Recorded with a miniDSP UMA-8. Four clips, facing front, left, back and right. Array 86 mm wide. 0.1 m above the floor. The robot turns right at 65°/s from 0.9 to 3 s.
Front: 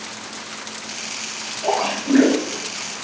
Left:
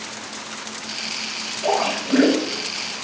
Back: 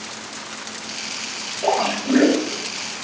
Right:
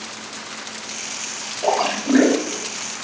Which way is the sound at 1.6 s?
150° right.